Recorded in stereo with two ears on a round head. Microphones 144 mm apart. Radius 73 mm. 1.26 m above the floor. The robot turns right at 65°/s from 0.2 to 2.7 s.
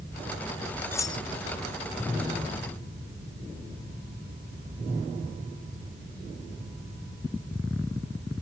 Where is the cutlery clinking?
15° left (ahead or behind); by 1.2 s 35° left (ahead or behind).